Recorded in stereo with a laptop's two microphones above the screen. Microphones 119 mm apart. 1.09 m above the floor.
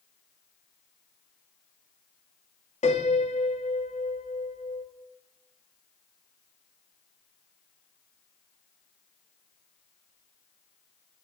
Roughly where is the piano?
Left.